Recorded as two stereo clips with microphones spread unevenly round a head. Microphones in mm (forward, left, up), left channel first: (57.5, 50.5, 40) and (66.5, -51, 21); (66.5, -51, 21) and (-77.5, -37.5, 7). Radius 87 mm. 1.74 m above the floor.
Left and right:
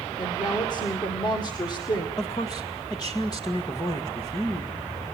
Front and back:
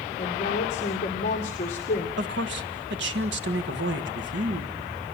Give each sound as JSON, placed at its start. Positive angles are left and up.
{"t": 0.2, "sound": "a woman speaking", "azimuth_deg": 45, "distance_m": 2.0}
{"t": 2.2, "sound": "a man speaking", "azimuth_deg": 160, "distance_m": 1.5}